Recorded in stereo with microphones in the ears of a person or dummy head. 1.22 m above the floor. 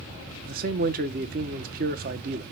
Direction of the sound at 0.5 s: 50° right (ahead or behind).